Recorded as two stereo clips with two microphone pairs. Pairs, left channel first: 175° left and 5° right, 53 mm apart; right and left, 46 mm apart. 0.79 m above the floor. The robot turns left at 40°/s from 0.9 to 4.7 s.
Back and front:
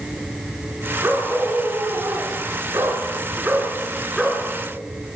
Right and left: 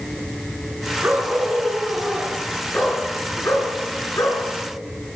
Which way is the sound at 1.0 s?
40° left.